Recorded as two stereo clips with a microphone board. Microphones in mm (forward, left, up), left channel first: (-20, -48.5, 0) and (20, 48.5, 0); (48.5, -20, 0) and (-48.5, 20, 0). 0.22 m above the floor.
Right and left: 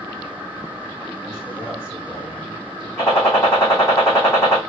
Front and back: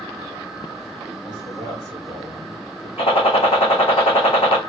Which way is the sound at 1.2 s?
60° right.